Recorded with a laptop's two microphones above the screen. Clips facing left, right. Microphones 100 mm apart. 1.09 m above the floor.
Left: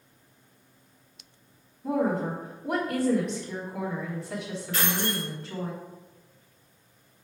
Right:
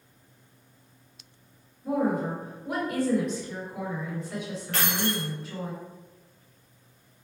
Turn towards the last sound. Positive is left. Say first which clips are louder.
# right 1 dB
turn(degrees=-65)  # may be behind; listen again after turning